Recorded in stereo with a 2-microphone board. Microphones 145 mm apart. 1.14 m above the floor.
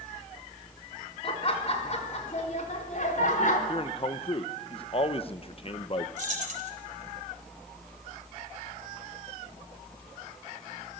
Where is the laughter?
40° left (ahead or behind), 4 m; by 3.6 s 65° left (ahead or behind), 4 m.